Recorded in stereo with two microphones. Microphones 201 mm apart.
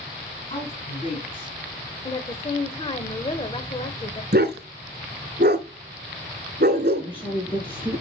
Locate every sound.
0.5 s a woman speaking: 35° left (ahead or behind), 4 m; by 1.6 s 30° left (ahead or behind), 3 m
2.0 s a woman speaking: 30° left (ahead or behind), 1.0 m
4.3 s a dog barking: 55° right (ahead or behind), 0.8 m
7.0 s a woman speaking: 10° left (ahead or behind), 4.5 m